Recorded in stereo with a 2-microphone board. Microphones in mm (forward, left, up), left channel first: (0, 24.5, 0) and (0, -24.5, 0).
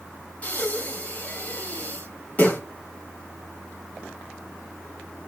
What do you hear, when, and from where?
0.4 s breathing: 35° left (ahead or behind), 0.7 m